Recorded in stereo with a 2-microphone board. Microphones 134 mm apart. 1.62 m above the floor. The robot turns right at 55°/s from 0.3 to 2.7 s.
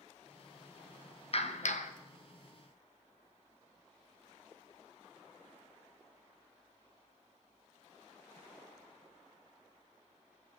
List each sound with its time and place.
1.3 s a clap: 55° left, 0.6 m; by 1.9 s 85° left, 0.6 m